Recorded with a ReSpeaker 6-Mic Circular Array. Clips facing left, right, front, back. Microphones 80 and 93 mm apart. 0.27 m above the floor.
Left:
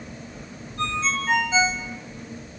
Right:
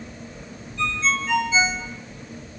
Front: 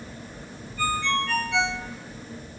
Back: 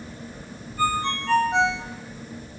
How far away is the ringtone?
About 3 m.